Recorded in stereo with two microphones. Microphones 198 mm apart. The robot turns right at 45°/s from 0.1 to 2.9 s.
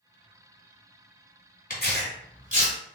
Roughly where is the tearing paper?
Left.